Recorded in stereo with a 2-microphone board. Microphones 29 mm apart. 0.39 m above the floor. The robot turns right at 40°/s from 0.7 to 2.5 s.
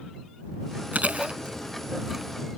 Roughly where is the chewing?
Right.